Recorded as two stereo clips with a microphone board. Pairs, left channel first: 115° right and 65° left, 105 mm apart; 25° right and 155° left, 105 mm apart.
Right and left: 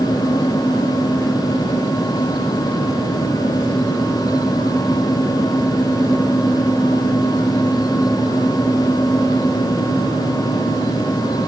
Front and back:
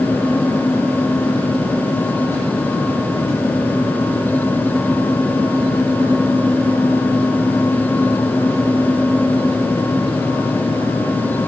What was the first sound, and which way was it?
Only background noise.